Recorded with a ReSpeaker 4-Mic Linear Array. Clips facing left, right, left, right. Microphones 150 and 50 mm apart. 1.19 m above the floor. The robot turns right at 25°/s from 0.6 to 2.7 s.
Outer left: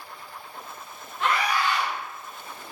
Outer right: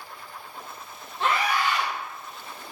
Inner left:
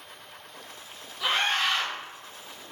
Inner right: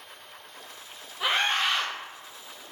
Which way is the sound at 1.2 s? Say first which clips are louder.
Even, even; 30° right (ahead or behind).